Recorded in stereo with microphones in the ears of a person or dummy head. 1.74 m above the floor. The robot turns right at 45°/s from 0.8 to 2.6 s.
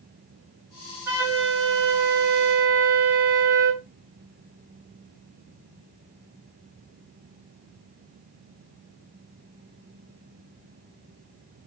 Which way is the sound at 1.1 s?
155° right.